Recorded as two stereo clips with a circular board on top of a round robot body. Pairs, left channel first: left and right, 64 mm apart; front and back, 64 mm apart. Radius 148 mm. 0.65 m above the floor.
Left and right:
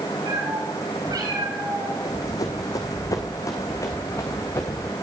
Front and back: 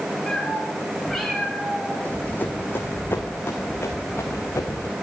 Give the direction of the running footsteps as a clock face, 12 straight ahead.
10 o'clock.